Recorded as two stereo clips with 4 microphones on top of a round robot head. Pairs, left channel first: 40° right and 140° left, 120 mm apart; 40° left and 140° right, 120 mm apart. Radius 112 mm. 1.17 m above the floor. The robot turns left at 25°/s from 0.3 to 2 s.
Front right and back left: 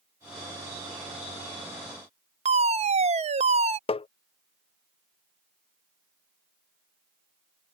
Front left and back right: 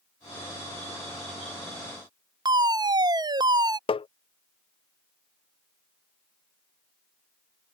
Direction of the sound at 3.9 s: Straight ahead.